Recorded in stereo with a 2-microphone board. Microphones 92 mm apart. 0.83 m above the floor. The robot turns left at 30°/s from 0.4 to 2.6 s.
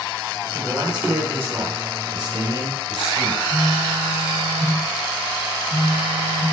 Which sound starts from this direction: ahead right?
A man speaking, at 0.5 s.